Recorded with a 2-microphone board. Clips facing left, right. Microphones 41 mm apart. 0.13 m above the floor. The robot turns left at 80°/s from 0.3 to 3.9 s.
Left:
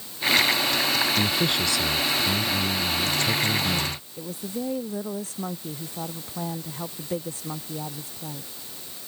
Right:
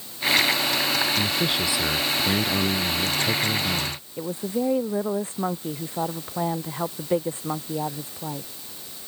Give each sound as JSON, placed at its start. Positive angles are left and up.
{"t": 1.2, "sound": "a man speaking", "azimuth_deg": 20}
{"t": 4.2, "sound": "a woman speaking", "side_deg": -35}